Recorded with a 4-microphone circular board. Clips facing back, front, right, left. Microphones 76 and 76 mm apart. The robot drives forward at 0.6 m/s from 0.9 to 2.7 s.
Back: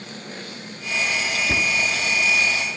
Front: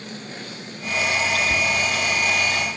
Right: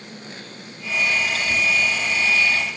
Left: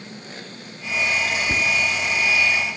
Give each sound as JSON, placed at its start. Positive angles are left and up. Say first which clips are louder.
{"t": 1.5, "sound": "a cupboard door", "louder": "front 1 dB, right 2 dB", "azimuth_deg": 145, "distance_m": 1.2}